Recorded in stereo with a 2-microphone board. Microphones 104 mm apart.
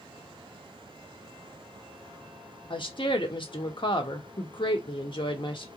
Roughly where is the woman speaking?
Left.